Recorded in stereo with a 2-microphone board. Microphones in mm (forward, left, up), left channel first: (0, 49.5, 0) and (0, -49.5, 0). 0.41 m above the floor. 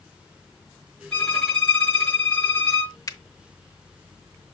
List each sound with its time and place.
1.1 s a violin: 10° left (ahead or behind), 5.5 m
3.1 s a finger snap: 35° left (ahead or behind), 0.9 m